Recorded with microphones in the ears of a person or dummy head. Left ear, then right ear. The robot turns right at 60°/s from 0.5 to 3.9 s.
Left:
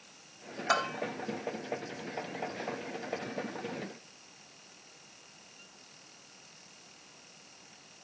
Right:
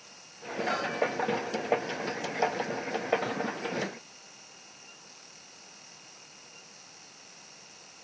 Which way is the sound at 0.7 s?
45° left (ahead or behind).